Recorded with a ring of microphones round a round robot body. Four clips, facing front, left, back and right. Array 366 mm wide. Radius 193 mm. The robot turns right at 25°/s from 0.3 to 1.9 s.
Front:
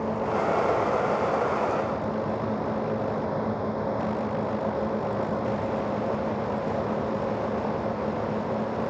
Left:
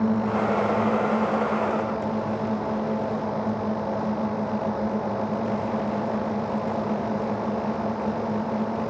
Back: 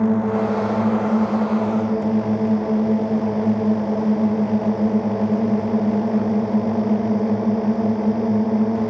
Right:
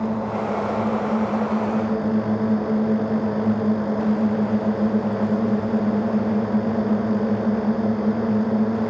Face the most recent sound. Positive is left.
turn(degrees=-150)